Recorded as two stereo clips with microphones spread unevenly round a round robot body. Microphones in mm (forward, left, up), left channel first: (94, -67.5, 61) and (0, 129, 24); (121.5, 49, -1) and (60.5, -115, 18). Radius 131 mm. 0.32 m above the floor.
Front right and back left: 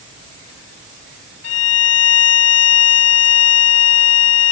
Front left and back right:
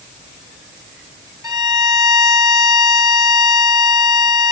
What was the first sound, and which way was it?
A violin, 40° right.